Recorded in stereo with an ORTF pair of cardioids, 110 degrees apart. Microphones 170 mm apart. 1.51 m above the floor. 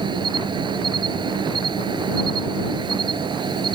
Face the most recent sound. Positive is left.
turn(degrees=-25)